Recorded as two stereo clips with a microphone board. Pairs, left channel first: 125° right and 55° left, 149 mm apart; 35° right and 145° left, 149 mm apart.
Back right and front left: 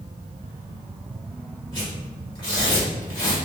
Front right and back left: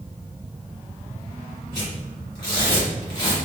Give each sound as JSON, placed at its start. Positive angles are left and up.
{"t": 1.7, "sound": "tearing paper", "azimuth_deg": -75, "distance_m": 1.3}